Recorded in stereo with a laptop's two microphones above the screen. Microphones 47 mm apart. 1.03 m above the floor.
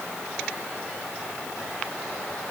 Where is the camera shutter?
No camera shutter in this recording.